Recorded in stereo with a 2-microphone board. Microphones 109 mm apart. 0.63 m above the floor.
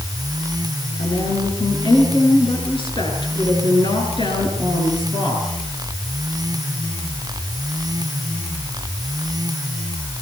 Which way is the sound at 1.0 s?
50° left (ahead or behind).